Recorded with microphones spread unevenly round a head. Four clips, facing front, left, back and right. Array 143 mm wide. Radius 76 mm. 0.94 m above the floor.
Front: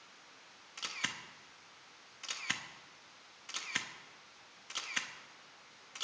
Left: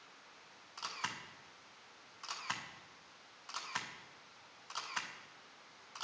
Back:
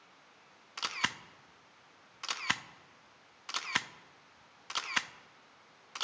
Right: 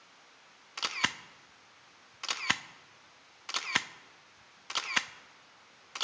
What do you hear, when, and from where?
0.8 s a camera shutter: 95° right, 0.5 m